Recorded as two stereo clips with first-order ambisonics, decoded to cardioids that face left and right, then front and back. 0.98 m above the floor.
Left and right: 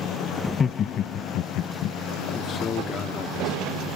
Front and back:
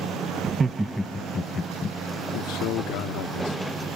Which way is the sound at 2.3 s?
25° left.